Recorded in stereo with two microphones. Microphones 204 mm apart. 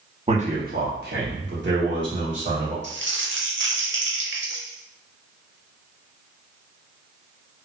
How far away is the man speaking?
About 0.9 m.